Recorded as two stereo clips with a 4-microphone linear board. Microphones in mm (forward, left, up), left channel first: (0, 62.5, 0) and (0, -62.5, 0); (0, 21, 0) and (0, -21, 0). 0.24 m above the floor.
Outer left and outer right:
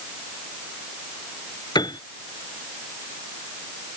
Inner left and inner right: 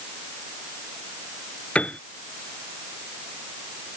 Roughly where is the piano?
Left.